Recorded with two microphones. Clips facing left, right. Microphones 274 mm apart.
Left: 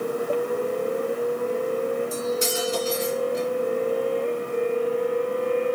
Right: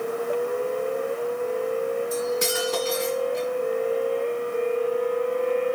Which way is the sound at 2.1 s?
70° right (ahead or behind).